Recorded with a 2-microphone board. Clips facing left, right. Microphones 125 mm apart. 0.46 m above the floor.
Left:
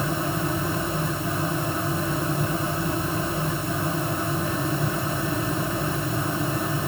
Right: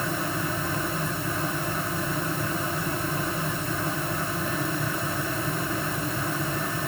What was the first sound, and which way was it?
Only background noise.